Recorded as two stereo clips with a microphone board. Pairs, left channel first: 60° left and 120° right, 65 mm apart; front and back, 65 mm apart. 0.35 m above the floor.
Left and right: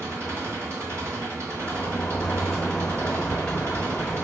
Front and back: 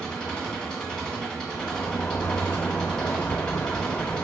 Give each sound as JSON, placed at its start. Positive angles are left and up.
{"t": 0.0, "sound": "an engine running", "azimuth_deg": -80, "distance_m": 2.0}
{"t": 1.5, "sound": "a sliding door", "azimuth_deg": -15, "distance_m": 0.9}